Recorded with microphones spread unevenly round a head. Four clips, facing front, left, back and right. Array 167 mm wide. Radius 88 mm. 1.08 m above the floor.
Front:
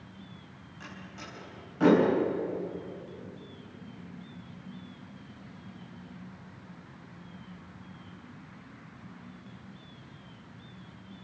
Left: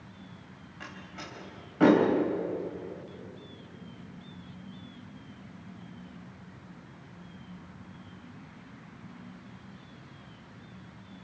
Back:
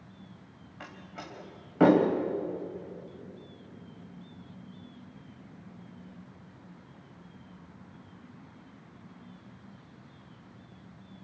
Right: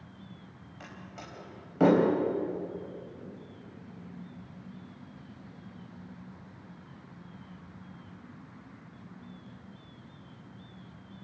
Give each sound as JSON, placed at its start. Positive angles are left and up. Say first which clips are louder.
{"t": 0.8, "sound": "a door slam", "louder": "left 2 dB, back 1 dB", "azimuth_deg": -165, "distance_m": 4.0}